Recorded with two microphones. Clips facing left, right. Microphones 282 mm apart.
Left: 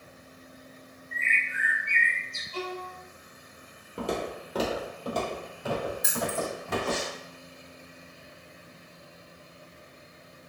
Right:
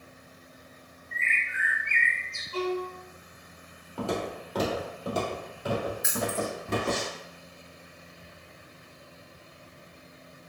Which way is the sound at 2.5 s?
60° right (ahead or behind).